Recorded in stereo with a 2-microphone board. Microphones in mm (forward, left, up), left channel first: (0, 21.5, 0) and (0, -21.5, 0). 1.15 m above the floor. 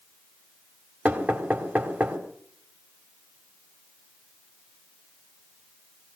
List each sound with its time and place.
1.1 s knocking: 25° right (ahead or behind), 3.5 m